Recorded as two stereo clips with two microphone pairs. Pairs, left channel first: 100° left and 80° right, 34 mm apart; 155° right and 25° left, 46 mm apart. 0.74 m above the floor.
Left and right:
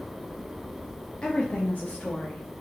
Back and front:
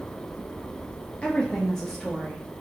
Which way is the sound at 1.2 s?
150° left.